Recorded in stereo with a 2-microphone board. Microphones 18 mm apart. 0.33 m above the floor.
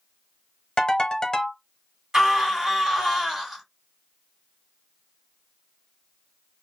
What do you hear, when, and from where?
0.8 s a ringtone: 40° left (ahead or behind), 0.8 m
2.1 s a scream: 30° right (ahead or behind), 2.0 m